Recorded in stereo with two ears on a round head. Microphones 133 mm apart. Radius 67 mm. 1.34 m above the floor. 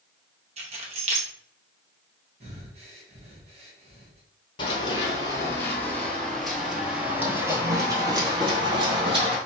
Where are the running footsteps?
35° left (ahead or behind), 1.6 m; by 9.4 s 35° right (ahead or behind), 2 m.